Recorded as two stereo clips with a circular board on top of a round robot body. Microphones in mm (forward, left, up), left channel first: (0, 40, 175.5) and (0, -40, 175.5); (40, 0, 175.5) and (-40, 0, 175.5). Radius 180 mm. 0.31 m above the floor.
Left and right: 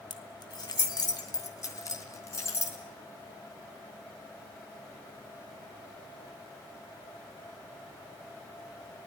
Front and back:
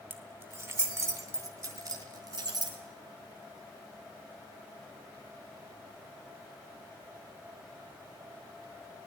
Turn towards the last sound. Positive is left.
turn(degrees=145)